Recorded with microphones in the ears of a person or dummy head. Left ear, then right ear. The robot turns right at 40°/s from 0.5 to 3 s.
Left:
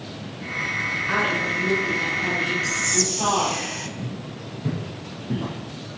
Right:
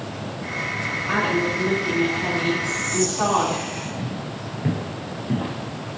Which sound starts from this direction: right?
Footsteps, at 4.0 s.